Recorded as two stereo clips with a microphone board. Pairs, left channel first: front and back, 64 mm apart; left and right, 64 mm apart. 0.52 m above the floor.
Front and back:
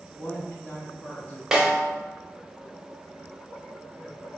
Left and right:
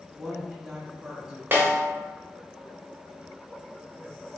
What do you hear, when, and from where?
0.1 s a woman speaking: 20° right, 1.0 m
1.5 s a snare drum: 105° right, 0.9 m